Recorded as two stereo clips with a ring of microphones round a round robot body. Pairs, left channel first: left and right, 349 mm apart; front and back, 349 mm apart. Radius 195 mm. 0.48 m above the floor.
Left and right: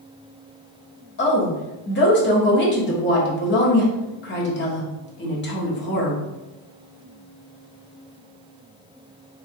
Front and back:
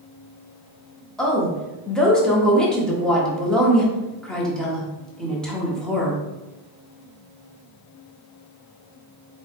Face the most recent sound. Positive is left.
turn(degrees=85)